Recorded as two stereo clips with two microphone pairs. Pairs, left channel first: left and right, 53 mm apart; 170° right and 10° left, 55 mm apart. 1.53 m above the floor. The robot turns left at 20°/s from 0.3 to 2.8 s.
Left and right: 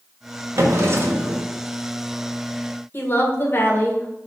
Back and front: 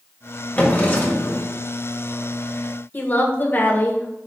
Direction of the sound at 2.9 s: 135° left.